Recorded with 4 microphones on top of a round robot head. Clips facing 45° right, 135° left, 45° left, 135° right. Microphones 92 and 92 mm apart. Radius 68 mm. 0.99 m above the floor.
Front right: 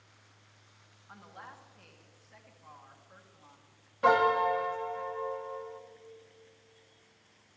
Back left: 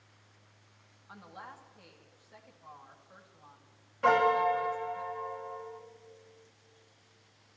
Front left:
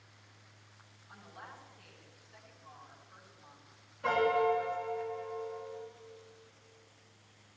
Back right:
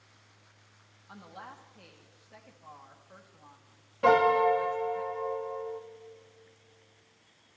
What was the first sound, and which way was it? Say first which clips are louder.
A woman speaking: back left 1 dB, back right 4 dB; 150° right.